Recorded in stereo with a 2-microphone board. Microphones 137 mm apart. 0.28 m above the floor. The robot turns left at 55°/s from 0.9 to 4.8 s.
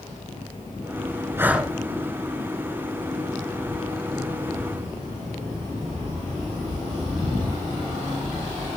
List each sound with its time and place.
1.4 s breathing: 20° right (ahead or behind), 1.3 m; by 1.7 s centre (ahead or behind), 1.3 m